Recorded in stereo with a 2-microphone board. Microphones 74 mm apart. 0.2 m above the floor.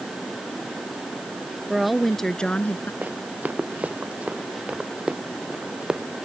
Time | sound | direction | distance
1.7 | a woman speaking | 5° right (ahead or behind) | ?
3.0 | running footsteps | 25° right (ahead or behind) | ?